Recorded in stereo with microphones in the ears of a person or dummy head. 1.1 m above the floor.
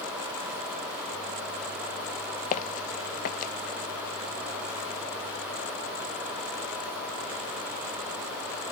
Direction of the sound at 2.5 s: 45° left (ahead or behind).